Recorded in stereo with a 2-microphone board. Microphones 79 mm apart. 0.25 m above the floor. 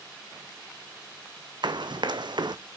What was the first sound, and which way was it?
Running footsteps, 70° right (ahead or behind).